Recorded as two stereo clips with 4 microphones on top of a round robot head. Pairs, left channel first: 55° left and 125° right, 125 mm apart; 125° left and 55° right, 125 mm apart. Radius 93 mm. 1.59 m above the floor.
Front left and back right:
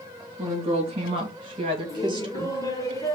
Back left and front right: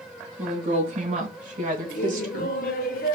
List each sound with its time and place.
0.4 s a woman speaking: 80° right, 2.5 m; by 2.6 s 70° right, 1.5 m
1.9 s laughter: 120° left, 0.9 m